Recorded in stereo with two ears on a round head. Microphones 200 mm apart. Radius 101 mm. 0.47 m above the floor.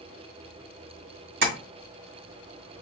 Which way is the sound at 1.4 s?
60° right (ahead or behind).